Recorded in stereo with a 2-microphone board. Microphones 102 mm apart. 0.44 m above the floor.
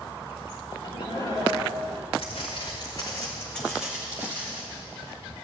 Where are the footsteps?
65° left (ahead or behind), 2.5 m; by 4.6 s 35° right (ahead or behind), 2.5 m.